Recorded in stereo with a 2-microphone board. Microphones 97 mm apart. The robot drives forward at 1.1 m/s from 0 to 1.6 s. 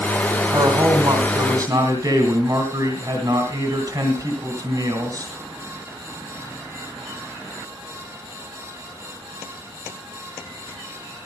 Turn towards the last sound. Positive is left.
turn(degrees=-40)  # may be behind; listen again after turning